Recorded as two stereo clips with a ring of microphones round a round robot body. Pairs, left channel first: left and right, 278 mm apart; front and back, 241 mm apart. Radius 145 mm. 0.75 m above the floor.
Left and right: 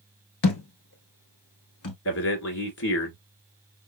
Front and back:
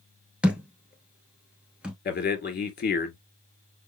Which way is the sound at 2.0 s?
50° left.